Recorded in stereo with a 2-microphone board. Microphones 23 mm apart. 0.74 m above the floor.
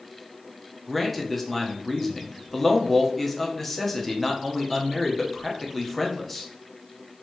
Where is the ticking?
I don't hear ticking.